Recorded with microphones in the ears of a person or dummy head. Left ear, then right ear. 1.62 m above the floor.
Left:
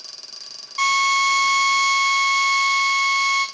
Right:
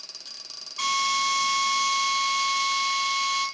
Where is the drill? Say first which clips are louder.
Left 7 dB; 70° left (ahead or behind), 2.5 m.